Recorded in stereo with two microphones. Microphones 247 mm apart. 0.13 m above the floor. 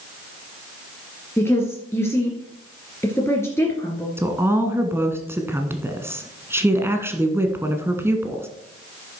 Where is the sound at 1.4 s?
10° left (ahead or behind), 2.5 m.